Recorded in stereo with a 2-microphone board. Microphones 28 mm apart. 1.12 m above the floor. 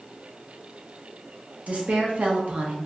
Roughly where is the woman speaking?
Right.